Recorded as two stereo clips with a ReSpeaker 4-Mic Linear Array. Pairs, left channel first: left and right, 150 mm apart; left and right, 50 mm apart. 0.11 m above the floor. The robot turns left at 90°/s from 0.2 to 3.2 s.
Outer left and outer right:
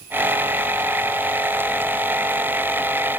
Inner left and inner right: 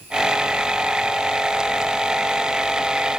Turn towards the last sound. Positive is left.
No sound to turn to.